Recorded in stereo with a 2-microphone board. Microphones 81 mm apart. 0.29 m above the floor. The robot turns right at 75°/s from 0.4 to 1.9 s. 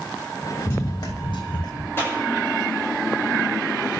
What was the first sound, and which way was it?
Running footsteps, 25° left (ahead or behind).